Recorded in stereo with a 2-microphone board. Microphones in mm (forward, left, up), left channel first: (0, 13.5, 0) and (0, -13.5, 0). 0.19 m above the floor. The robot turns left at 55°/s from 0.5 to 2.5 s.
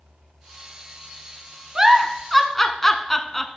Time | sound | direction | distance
1.8 | a giggle | 25° right (ahead or behind) | 0.6 m